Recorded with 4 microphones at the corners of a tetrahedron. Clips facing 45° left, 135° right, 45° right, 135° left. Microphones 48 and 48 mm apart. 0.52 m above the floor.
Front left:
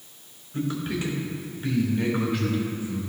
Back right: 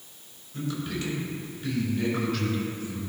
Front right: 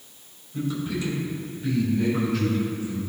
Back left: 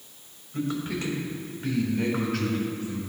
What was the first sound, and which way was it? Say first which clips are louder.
A man speaking: front left 4 dB, front right 1 dB; 105° left.